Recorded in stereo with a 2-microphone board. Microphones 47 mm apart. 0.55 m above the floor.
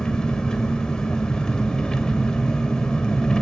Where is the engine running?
15° left (ahead or behind), 2 m.